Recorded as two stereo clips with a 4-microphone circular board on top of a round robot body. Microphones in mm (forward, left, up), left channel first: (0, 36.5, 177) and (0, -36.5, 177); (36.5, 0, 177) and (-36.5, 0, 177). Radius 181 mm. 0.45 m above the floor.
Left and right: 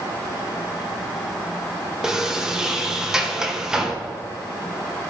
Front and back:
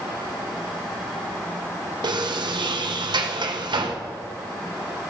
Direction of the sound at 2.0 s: 170° right.